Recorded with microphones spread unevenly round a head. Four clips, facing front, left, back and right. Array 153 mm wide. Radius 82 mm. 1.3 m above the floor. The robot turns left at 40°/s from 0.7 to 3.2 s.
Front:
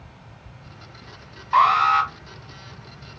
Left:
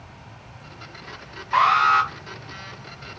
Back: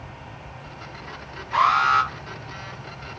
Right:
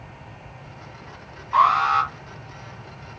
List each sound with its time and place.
1.5 s an alarm: 35° left, 1.3 m; by 2.1 s 15° left, 1.3 m